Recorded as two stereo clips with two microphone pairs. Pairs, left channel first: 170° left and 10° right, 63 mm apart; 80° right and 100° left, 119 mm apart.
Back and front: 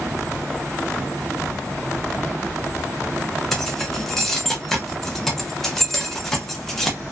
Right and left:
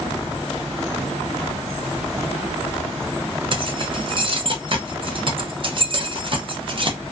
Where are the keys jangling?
85° left, 0.5 m.